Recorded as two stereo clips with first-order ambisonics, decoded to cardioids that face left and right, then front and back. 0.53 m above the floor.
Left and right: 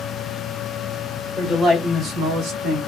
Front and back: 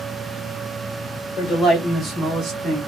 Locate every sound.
1.4 s a man speaking: 5° right, 1.2 m; by 2.8 s 120° right, 1.5 m